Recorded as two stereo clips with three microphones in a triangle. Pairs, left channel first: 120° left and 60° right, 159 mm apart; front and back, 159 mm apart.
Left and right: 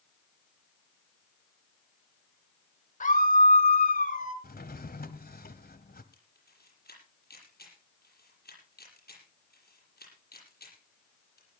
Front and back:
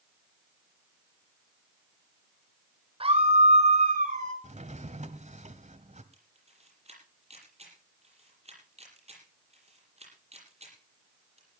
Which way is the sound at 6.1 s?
130° left.